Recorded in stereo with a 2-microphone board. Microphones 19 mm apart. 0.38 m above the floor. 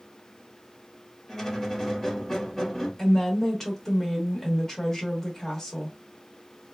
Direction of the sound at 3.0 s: 20° left (ahead or behind).